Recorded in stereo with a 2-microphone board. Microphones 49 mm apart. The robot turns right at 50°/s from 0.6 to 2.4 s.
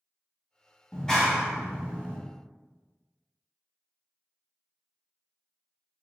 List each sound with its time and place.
0.9 s a clap: 160° left, 0.7 m; by 2.2 s 140° right, 0.7 m